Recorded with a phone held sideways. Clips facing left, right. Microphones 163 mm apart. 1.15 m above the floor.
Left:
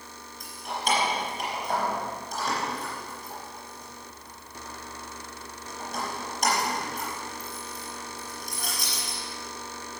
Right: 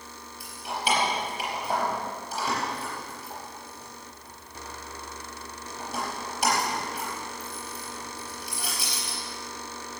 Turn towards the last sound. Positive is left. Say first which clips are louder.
# right 1 dB
turn(degrees=-5)  # may be behind; listen again after turning